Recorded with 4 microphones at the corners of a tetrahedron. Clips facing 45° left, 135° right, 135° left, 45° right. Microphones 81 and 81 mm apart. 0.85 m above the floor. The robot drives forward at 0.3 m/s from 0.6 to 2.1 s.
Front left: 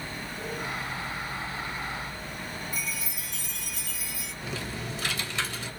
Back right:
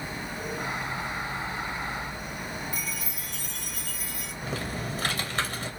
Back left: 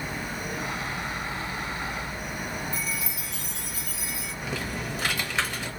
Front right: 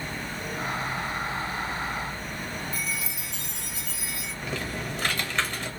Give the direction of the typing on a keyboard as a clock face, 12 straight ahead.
5 o'clock.